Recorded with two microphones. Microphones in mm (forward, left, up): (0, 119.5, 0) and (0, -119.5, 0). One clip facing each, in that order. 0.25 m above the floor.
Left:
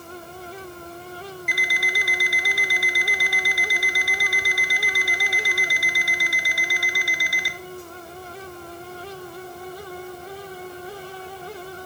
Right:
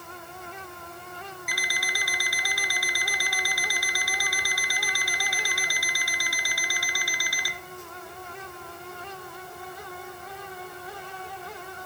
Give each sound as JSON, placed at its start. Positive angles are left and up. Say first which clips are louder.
{"t": 1.5, "sound": "an alarm clock", "louder": "left 5 dB", "side_deg": 25, "distance_m": 1.1}